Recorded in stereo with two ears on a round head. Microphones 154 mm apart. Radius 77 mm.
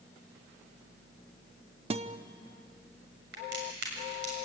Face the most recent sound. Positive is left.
turn(degrees=-75)  # may be behind; listen again after turning